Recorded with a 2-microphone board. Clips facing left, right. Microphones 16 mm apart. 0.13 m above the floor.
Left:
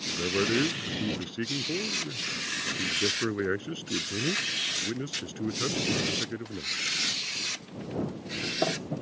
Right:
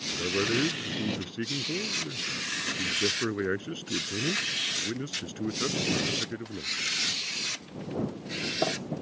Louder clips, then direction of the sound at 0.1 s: Left 1 dB; 5° left (ahead or behind).